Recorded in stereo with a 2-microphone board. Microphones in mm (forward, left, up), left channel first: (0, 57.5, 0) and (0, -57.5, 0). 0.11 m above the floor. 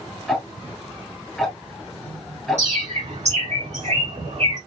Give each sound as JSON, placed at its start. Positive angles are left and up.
{"t": 0.3, "sound": "ticking", "side_deg": 0, "distance_m": 1.2}
{"t": 2.6, "sound": "a bird", "side_deg": -70, "distance_m": 3.5}